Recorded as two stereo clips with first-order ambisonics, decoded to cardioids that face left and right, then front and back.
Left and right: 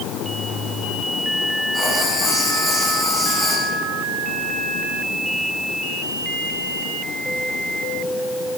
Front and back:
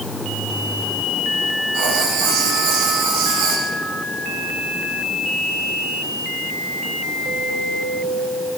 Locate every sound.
1.7 s writing: 170° right, 9.5 m